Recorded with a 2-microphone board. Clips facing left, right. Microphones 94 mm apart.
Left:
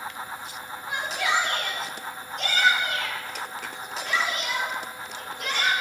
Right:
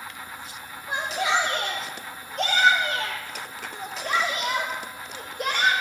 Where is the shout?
40° right (ahead or behind), 2.0 m; by 5.7 s 65° right (ahead or behind), 5 m.